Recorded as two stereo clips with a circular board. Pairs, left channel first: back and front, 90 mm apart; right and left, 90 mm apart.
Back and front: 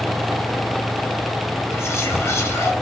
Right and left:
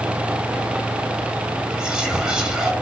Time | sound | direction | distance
1.7 | whispering | 165° left | 0.7 m